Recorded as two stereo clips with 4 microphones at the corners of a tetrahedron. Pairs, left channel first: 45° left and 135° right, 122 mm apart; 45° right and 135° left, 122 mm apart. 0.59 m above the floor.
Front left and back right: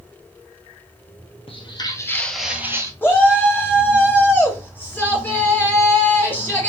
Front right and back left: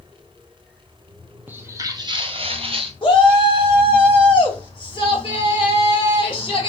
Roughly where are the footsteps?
Ahead left.